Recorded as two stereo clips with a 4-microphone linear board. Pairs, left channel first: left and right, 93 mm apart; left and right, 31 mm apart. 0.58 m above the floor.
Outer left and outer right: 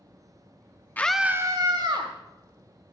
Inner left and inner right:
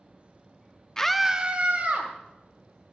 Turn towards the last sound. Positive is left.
turn(degrees=-60)  # may be behind; listen again after turning